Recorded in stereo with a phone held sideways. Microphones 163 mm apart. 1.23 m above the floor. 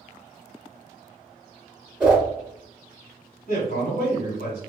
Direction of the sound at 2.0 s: 5° right (ahead or behind).